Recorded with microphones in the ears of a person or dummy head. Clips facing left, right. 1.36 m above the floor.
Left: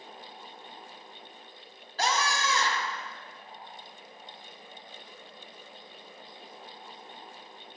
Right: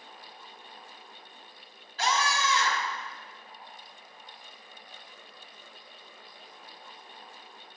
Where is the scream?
40° left (ahead or behind), 1.0 m.